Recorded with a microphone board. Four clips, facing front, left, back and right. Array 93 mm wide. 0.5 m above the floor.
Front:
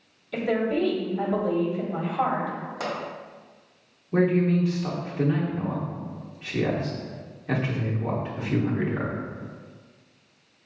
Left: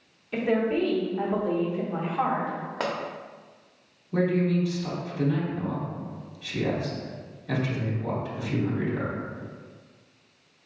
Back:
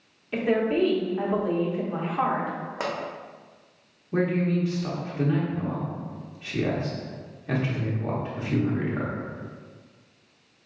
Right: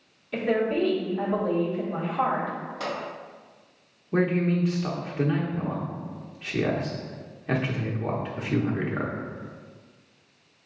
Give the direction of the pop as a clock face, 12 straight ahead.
8 o'clock.